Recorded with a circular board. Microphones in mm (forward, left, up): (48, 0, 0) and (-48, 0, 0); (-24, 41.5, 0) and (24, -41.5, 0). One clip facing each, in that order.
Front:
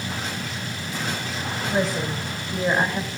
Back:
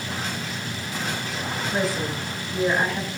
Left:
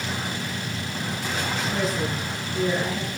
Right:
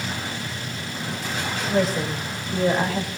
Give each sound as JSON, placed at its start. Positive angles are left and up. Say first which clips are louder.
{"t": 1.7, "sound": "a woman speaking", "louder": "front 2 dB, right 7 dB", "azimuth_deg": -70, "distance_m": 7.5}